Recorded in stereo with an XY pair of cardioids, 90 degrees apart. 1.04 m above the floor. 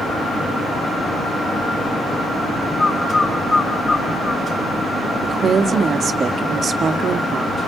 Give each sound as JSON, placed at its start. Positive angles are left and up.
{"t": 2.8, "sound": "a bird", "azimuth_deg": 30, "distance_m": 3.5}
{"t": 5.2, "sound": "a woman speaking", "azimuth_deg": -55, "distance_m": 1.7}